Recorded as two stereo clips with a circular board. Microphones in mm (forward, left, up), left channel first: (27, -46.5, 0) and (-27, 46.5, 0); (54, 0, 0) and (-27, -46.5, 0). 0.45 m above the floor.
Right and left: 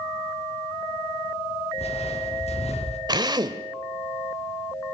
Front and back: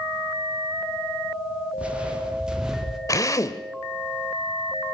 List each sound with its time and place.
1.8 s footsteps: 70° right, 4.5 m; by 3.0 s 65° right, 4 m
3.1 s a drill: 75° left, 1.4 m